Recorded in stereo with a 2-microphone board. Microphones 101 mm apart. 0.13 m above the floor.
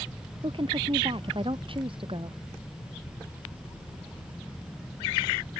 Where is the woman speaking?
60° right (ahead or behind).